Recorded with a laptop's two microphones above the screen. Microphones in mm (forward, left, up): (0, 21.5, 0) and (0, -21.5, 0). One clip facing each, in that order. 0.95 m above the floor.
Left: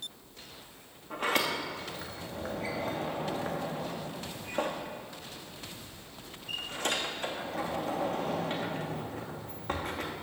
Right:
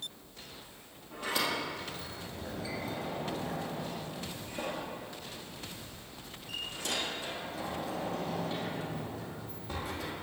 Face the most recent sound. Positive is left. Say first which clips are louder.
# left 3 dB
turn(degrees=55)  # may be behind; listen again after turning